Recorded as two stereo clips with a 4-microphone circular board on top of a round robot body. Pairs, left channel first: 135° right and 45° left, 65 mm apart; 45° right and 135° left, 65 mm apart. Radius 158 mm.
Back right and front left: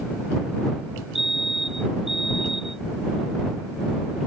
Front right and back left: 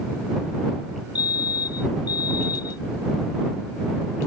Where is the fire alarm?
40° right.